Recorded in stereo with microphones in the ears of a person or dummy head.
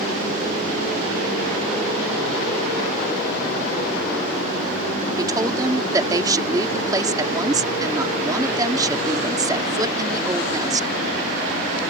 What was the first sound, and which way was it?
A woman speaking, 25° right (ahead or behind).